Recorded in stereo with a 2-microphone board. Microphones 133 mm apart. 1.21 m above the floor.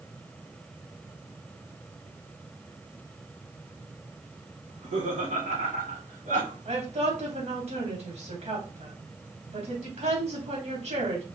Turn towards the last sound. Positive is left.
turn(degrees=-60)  # may be behind; listen again after turning